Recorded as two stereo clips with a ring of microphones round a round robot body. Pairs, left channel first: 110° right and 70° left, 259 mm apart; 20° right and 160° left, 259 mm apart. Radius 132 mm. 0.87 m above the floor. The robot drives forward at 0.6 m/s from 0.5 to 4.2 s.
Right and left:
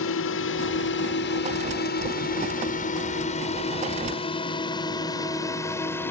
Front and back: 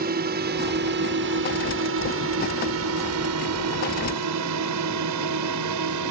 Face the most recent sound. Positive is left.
turn(degrees=165)